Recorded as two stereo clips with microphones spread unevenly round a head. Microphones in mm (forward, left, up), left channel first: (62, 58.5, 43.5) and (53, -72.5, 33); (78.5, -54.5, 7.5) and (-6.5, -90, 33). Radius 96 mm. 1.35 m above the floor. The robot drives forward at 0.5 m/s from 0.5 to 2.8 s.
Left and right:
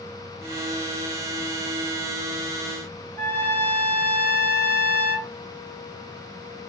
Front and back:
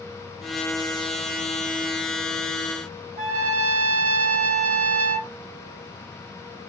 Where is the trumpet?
160° left, 0.8 m.